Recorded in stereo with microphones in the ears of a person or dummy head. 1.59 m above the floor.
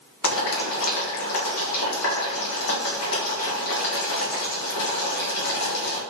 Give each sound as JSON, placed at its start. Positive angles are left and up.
{"t": 0.2, "sound": "boiling", "side_deg": 80, "distance_m": 2.0}